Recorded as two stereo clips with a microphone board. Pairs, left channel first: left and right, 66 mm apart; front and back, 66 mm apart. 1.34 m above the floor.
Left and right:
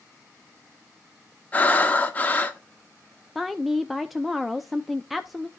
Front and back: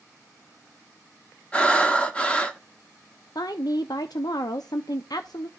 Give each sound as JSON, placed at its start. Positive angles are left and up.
{"t": 1.5, "sound": "breathing", "azimuth_deg": 55, "distance_m": 0.9}
{"t": 3.4, "sound": "a woman speaking", "azimuth_deg": 0, "distance_m": 0.5}